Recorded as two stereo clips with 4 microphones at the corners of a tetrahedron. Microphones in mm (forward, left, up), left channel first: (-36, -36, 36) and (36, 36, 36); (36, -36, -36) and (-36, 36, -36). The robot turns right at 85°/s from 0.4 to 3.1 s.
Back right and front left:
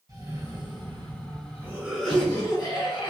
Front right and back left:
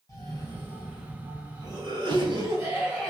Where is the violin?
No violin in this recording.